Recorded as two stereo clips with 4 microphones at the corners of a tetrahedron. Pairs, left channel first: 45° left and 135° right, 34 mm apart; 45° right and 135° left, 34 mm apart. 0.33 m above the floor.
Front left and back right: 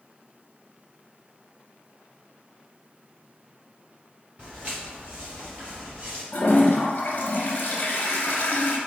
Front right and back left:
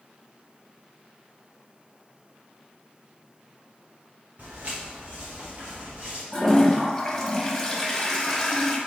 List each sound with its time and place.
4.4 s footsteps: 165° left, 1.5 m; by 6.2 s 170° right, 2.5 m
6.3 s a toilet flushing: 25° left, 0.6 m